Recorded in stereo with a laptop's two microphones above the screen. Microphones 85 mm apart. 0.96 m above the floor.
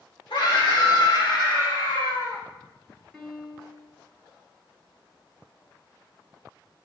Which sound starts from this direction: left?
A scream, at 0.3 s.